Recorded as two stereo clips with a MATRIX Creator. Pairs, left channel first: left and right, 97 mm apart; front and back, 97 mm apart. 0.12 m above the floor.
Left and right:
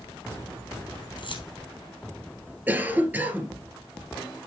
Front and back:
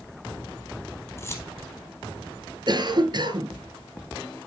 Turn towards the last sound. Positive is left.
turn(degrees=-155)